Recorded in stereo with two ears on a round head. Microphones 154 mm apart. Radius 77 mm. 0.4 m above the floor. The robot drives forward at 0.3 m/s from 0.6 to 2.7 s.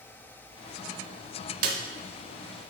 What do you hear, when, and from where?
1.6 s a snare drum: 50° right (ahead or behind), 1.0 m; by 1.8 s 55° right (ahead or behind), 1.0 m